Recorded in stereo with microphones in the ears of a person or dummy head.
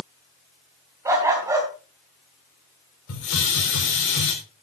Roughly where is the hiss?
Left.